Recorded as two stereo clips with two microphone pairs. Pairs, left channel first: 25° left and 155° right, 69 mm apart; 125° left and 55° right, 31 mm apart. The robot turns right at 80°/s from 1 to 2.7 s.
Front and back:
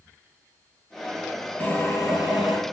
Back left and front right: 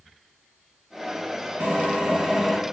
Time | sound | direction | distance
1.6 | a drill | 45° right | 2.5 m